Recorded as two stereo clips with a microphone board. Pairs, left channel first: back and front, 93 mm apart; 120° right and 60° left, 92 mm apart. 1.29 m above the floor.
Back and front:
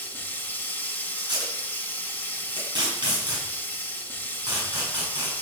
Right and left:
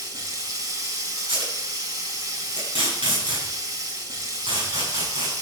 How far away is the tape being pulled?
About 8 m.